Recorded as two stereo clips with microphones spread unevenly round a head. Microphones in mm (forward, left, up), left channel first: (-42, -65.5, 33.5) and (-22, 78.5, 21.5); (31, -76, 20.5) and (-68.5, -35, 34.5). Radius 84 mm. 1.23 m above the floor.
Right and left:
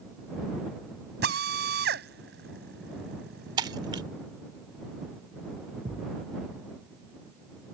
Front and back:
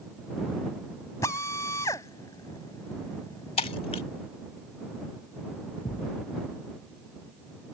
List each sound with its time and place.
1.2 s a drill: 50° left
3.6 s breaking glass: 20° left
5.8 s a thud: 15° left